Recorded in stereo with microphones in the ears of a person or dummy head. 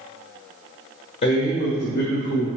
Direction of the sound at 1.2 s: 50° left (ahead or behind).